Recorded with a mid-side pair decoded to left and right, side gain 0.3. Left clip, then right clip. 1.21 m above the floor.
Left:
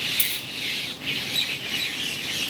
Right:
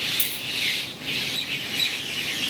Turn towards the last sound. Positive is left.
turn(degrees=35)